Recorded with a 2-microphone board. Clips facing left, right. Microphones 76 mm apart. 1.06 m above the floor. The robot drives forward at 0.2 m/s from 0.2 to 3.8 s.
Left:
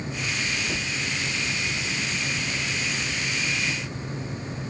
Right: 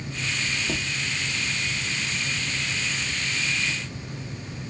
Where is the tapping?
30° right (ahead or behind), 1.0 m.